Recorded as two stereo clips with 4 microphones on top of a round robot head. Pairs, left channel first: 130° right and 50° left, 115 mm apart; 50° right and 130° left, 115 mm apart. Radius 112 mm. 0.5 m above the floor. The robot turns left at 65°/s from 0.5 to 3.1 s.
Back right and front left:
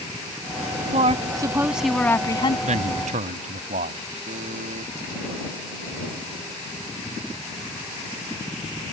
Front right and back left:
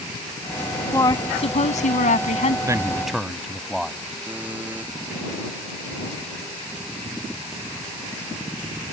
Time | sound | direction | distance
0.9 | a woman speaking | 20° left | ?
2.7 | a man speaking | 70° left | ?
4.3 | a buzzer | 55° left | ?